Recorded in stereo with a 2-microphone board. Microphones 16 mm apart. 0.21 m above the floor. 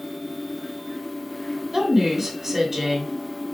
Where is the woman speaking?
35° right (ahead or behind), 1.5 m.